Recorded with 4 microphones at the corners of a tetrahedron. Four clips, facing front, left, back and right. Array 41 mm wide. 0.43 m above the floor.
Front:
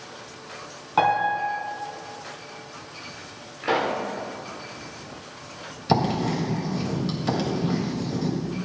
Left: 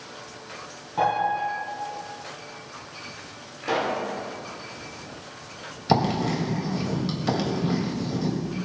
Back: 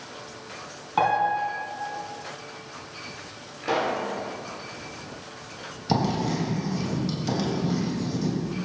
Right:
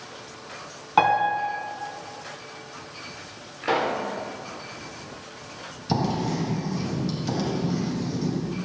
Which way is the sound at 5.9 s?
55° left.